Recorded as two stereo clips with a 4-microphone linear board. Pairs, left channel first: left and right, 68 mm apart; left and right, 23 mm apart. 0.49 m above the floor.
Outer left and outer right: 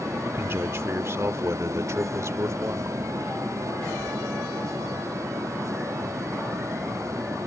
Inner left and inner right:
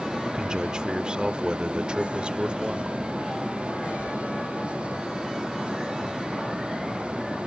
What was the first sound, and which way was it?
A man speaking, 35° right (ahead or behind).